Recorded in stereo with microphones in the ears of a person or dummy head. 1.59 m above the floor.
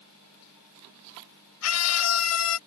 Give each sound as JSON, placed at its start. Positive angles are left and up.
{"t": 1.6, "sound": "a scream", "side_deg": 85}